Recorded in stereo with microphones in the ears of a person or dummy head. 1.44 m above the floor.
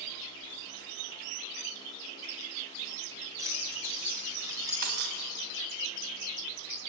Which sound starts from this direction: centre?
Keys jangling, at 3.4 s.